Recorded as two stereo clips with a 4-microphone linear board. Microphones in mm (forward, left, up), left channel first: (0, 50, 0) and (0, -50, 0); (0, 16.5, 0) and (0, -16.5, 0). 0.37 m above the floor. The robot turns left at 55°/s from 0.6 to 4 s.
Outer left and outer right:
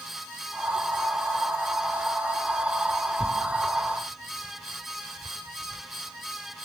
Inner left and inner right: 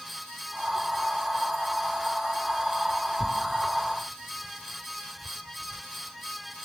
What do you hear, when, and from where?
3.2 s tearing paper: 20° right (ahead or behind), 1.4 m; by 5.8 s 15° left (ahead or behind), 1.4 m